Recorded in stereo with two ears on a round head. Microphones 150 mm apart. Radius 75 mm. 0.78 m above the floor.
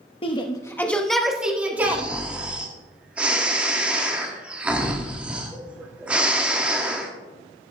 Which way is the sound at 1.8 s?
10° right (ahead or behind).